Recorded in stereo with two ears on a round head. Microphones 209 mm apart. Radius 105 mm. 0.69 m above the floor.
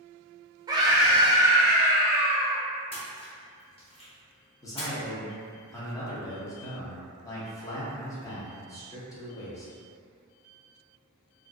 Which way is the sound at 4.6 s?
15° left (ahead or behind).